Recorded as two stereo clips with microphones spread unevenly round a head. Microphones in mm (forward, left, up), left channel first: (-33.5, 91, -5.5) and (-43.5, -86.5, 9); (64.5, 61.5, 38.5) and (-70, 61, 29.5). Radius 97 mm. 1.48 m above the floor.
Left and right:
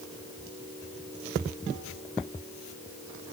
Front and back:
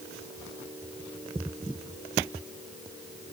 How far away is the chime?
No chime in this recording.